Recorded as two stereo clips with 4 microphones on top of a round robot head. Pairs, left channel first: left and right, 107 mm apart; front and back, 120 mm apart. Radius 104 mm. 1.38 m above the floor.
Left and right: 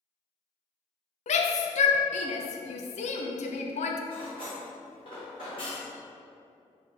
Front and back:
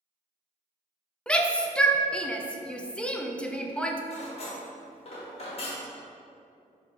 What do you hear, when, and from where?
1.3 s a shout: 80° left, 0.5 m
4.1 s cutlery clinking: 30° left, 1.1 m